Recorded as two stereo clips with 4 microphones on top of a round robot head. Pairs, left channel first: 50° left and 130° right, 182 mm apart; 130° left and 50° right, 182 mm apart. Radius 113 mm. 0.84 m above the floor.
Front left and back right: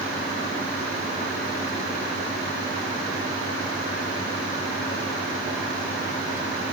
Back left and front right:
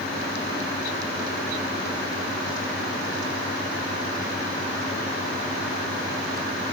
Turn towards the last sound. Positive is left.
No sound to turn to.